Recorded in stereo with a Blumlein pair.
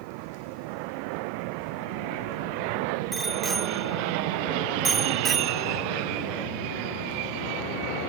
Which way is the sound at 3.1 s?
10° right.